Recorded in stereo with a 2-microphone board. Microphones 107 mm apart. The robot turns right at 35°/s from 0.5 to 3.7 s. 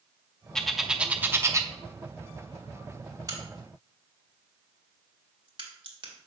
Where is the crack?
35° right (ahead or behind), 1.8 m; by 6.3 s 50° right (ahead or behind), 1.8 m.